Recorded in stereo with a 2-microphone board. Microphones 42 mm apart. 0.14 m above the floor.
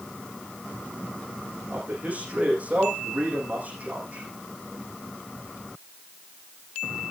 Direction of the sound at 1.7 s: 35° right (ahead or behind).